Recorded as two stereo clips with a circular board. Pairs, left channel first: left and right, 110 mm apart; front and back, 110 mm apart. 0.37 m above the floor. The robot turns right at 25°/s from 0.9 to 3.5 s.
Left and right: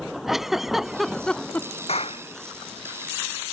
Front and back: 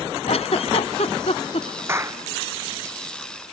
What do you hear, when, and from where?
0.3 s a giggle: 5° right; by 1.8 s 20° left
1.9 s a clap: 110° left; by 2.2 s 120° left